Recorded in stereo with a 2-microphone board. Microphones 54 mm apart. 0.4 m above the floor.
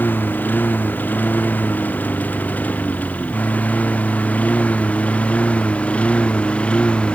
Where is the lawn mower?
35° left (ahead or behind); by 7.2 s 20° left (ahead or behind).